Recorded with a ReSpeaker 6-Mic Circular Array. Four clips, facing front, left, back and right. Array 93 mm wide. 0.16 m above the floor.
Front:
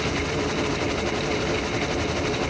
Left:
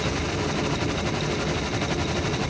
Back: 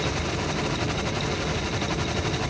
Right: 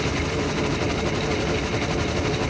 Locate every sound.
Only background noise.